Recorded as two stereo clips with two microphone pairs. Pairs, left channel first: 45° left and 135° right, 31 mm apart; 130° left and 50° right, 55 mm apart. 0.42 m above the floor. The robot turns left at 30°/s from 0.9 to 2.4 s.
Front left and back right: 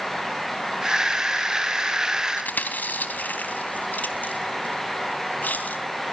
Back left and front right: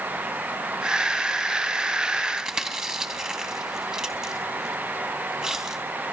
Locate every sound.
2.4 s chewing: 30° left, 3.5 m